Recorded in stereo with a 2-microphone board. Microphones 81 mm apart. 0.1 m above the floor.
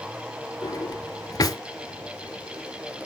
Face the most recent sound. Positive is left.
turn(degrees=50)  # may be behind; listen again after turning